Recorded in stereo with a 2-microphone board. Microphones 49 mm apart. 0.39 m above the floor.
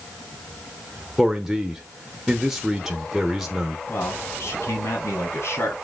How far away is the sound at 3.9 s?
About 3 m.